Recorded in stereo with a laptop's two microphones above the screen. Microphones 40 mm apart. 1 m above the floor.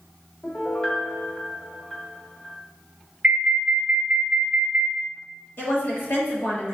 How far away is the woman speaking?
About 1.3 m.